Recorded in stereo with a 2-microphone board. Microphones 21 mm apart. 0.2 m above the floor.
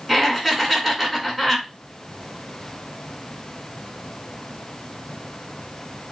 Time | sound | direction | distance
0.1 | laughter | 5° left (ahead or behind) | 2.0 m